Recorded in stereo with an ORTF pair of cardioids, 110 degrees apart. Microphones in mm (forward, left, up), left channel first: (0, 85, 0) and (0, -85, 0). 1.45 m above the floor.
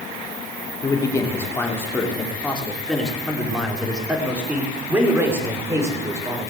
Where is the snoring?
No snoring in this recording.